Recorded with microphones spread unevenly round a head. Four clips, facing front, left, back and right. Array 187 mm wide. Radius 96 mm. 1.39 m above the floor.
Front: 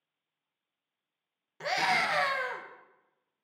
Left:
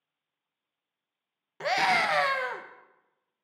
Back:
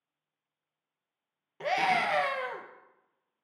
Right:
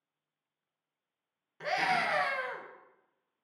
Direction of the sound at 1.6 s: 120° left.